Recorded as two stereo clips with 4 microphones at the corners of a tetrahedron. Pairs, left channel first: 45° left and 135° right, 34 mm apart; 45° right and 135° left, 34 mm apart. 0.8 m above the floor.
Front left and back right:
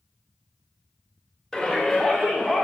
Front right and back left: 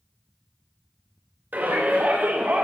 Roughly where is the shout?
Behind left.